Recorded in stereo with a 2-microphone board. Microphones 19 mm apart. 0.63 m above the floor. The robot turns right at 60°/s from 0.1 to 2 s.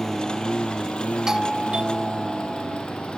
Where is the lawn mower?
25° left (ahead or behind); by 3.2 s 55° left (ahead or behind).